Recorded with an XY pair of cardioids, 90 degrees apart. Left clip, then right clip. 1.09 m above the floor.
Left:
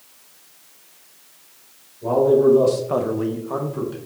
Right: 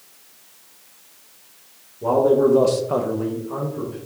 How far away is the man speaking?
About 1.4 m.